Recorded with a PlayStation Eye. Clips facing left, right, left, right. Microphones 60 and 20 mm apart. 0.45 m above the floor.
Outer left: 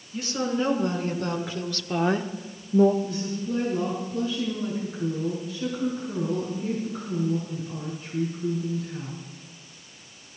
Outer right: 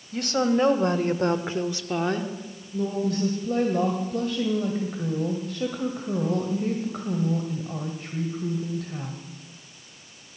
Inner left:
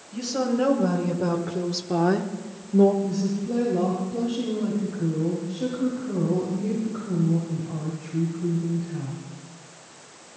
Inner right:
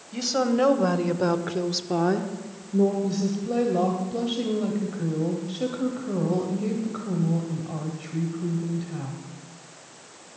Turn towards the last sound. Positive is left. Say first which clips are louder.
# outer right 4 dB, even
turn(degrees=-65)  # may be behind; listen again after turning